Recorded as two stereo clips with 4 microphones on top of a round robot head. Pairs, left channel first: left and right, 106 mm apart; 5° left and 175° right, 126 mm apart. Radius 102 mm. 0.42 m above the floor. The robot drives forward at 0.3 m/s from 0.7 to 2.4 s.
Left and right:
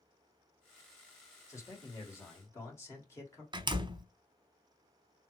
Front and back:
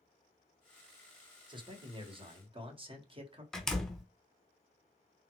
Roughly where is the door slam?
Right.